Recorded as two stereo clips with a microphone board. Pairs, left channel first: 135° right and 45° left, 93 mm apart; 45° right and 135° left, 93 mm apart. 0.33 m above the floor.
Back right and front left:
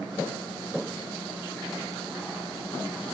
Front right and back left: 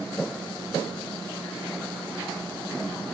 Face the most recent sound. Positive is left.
No sound to turn to.